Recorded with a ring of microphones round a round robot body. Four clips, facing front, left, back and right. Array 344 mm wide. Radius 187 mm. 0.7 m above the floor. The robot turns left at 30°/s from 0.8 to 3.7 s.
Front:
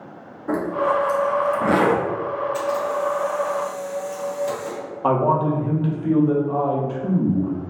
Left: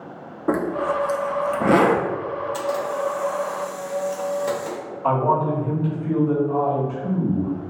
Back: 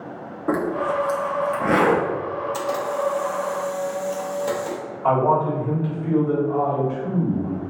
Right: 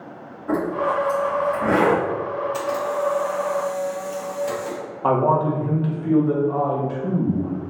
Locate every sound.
0.5 s a zipper: 110° left, 0.6 m; by 2.0 s 75° left, 0.6 m
2.5 s a camera shutter: 160° left, 1.2 m; by 4.8 s 125° left, 1.2 m
5.0 s a man speaking: 35° right, 1.1 m